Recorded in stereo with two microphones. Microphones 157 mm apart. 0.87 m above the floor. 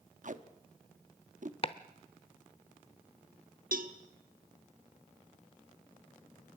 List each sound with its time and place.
0.2 s tape being pulled: 60° right (ahead or behind), 1.0 m
1.6 s chopping: 40° left (ahead or behind), 0.8 m
3.7 s a cowbell: 70° right (ahead or behind), 1.3 m